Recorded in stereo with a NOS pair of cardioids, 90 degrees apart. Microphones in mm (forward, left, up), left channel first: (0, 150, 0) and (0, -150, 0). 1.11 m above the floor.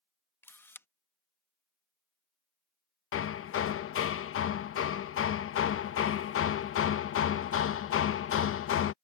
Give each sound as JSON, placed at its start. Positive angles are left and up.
{"t": 0.4, "sound": "a camera shutter", "azimuth_deg": 5}
{"t": 3.1, "sound": "hammering", "azimuth_deg": 45}